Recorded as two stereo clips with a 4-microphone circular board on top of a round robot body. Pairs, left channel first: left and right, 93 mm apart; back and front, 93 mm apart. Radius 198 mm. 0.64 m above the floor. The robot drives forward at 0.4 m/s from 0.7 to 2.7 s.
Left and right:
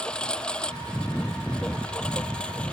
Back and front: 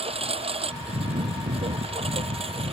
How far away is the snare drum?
No snare drum in this recording.